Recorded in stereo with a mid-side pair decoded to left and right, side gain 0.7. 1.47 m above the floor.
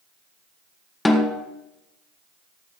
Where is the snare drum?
15° left, 1.4 m.